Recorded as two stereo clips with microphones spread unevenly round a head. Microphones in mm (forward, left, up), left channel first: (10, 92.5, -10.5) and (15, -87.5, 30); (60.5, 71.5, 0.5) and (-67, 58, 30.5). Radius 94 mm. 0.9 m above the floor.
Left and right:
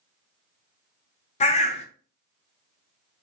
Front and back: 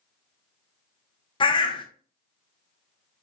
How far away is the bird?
About 0.7 m.